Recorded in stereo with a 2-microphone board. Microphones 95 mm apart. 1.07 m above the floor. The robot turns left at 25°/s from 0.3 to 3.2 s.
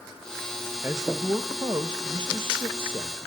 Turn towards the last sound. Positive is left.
turn(degrees=-90)